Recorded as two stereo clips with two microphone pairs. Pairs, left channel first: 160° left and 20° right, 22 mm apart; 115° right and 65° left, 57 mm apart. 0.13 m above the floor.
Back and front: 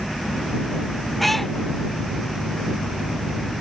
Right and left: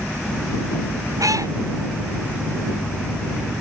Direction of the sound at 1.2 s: 75° left.